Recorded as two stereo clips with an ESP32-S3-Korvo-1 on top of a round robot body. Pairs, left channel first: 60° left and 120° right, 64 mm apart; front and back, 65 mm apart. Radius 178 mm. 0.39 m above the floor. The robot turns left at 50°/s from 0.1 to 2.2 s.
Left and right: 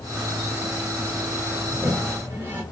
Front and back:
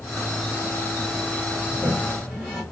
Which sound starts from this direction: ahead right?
A toilet flushing, at 1.7 s.